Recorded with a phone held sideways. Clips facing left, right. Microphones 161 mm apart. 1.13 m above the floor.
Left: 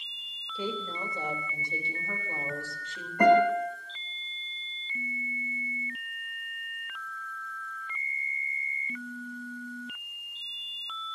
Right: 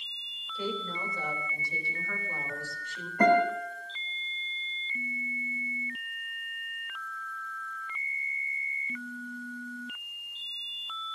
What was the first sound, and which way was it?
A woman speaking, 25° left (ahead or behind).